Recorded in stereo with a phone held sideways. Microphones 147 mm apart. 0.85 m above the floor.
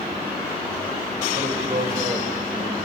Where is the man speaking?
60° right (ahead or behind), 5 m.